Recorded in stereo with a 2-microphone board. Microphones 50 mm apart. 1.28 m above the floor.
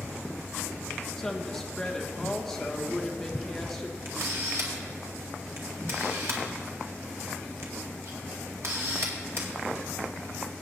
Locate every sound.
1.2 s a woman speaking: 5° left (ahead or behind), 1.3 m
4.0 s a camera shutter: 60° right (ahead or behind), 2 m